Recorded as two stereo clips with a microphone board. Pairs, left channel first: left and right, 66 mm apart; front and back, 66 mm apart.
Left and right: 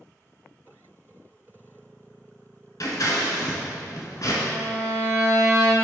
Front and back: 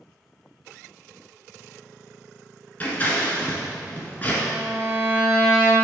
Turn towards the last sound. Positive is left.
turn(degrees=-110)